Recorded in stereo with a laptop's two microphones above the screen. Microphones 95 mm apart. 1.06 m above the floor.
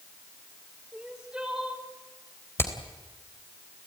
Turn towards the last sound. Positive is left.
turn(degrees=25)  # may be behind; listen again after turning